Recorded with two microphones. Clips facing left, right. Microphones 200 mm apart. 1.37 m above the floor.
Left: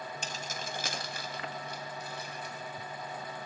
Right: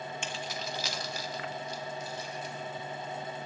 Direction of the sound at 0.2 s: 40° left (ahead or behind).